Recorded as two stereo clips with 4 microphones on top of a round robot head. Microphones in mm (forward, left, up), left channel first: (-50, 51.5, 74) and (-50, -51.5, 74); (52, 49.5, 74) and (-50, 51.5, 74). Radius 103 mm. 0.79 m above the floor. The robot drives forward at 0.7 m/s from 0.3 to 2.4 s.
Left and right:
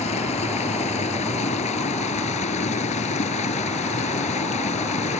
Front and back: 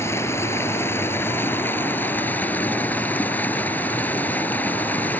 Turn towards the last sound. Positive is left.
turn(degrees=75)